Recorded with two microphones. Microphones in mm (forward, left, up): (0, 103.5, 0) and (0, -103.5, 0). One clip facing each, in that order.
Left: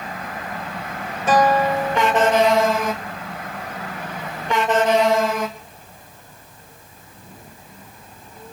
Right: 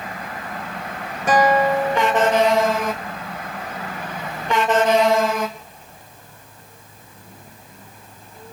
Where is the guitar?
15° right (ahead or behind), 6 m.